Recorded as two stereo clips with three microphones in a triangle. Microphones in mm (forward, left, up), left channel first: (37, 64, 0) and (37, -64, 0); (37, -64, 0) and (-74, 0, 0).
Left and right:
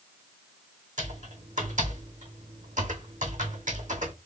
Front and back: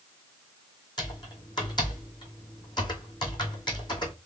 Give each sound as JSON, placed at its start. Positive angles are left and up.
{"t": 1.0, "sound": "typing on a keyboard", "azimuth_deg": -85, "distance_m": 2.5}